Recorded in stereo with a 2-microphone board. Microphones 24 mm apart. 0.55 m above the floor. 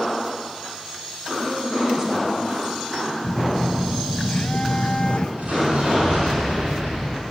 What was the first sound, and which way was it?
A woman speaking, 20° right (ahead or behind).